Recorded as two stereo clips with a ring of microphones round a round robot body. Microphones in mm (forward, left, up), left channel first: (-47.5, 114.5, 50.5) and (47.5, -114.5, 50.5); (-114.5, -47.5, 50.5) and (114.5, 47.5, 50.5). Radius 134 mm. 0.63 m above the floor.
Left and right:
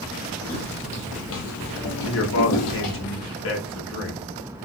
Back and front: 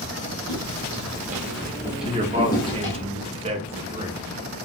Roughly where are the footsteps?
Ahead left.